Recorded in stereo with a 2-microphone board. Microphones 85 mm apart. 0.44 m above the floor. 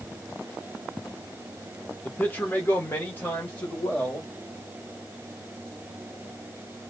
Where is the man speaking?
20° left (ahead or behind), 0.9 m.